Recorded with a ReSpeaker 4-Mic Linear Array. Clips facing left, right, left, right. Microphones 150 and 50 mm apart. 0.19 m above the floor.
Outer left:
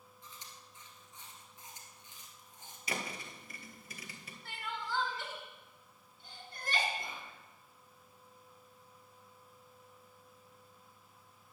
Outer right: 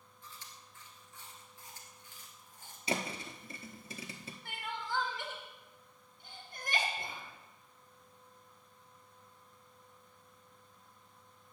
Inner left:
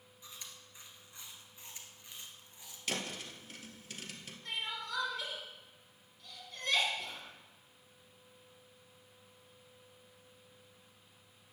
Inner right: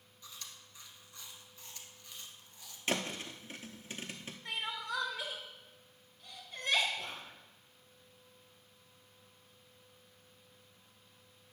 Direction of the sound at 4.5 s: 15° right (ahead or behind).